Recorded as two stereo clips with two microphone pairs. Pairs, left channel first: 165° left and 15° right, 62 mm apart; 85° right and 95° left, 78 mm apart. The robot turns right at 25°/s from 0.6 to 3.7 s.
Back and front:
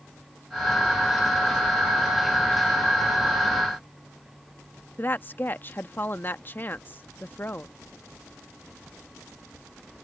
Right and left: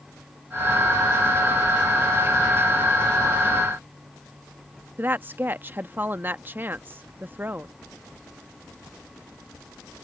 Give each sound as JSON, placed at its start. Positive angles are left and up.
{"t": 5.0, "sound": "a woman speaking", "azimuth_deg": 140}